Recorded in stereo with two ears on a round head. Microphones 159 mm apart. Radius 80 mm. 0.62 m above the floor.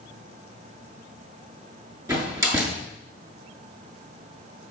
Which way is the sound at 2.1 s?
20° right (ahead or behind).